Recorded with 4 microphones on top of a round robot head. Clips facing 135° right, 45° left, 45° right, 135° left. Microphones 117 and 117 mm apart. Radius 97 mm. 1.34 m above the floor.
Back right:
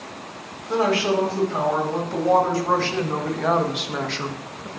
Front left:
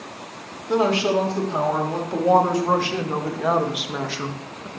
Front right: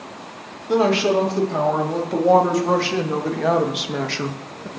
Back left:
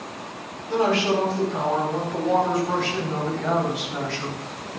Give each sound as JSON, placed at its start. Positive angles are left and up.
{"t": 0.7, "sound": "a woman speaking", "azimuth_deg": -20, "distance_m": 3.5}